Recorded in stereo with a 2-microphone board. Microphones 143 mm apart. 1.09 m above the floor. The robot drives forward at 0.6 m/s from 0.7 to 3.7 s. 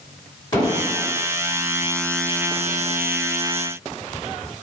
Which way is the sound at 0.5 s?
35° left (ahead or behind).